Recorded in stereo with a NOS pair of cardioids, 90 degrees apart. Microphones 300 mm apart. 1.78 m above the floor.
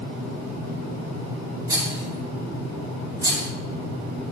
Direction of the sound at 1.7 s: 10° right.